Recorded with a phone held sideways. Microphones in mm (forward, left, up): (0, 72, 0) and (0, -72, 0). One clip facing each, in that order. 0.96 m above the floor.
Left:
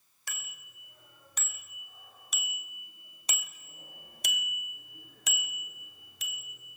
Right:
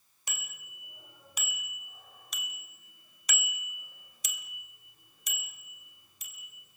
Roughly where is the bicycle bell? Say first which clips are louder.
Right 1 dB; centre.